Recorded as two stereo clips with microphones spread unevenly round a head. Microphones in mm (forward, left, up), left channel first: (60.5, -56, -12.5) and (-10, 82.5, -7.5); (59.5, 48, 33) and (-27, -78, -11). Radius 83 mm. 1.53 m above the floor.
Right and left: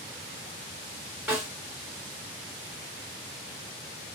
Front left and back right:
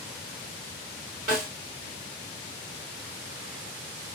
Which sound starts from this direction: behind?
A snare drum, at 1.3 s.